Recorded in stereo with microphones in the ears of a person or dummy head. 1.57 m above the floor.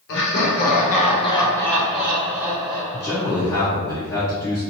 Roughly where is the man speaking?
Centre.